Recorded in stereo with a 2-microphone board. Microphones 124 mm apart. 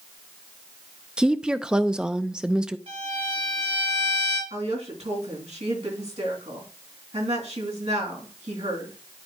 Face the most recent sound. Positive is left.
turn(degrees=-70)  # may be behind; listen again after turning